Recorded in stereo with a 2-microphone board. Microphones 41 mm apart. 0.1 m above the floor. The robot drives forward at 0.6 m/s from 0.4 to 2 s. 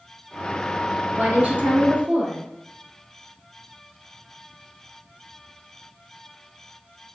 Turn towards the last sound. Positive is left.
turn(degrees=-40)  # may be behind; listen again after turning